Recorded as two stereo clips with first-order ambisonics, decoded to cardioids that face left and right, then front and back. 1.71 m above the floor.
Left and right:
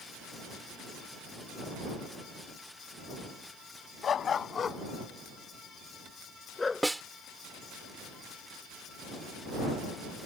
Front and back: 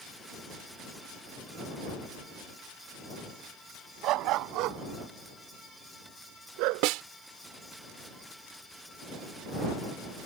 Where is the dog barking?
150° left; by 6.9 s 165° left.